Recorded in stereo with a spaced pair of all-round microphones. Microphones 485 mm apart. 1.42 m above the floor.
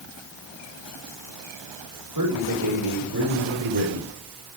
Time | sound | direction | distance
2.1 | a man speaking | 50° right (ahead or behind) | 7 m